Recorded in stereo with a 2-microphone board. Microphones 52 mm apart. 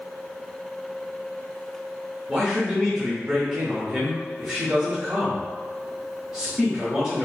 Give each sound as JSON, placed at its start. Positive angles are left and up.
{"t": 2.3, "sound": "a man speaking", "side_deg": -15, "distance_m": 1.0}